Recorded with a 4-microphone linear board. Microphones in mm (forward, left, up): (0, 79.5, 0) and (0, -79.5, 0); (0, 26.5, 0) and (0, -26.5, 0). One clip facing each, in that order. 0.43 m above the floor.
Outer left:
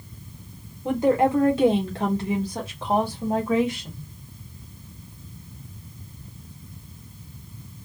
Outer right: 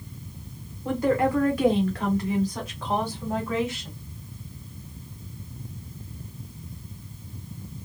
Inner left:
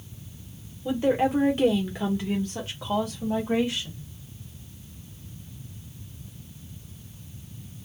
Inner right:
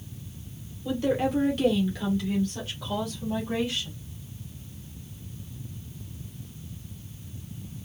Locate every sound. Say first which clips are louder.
0.8 s a woman speaking: outer left 3 dB, inner left 3 dB; 20° left (ahead or behind), 0.9 m